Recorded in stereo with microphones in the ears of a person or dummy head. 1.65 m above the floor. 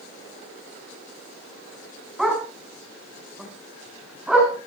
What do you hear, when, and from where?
2.2 s a dog barking: 5° right (ahead or behind), 6 m